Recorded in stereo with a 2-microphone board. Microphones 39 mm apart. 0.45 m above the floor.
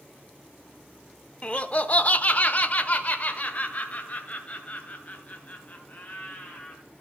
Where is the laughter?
25° left (ahead or behind), 0.8 m; by 6.8 s 35° left (ahead or behind), 3 m.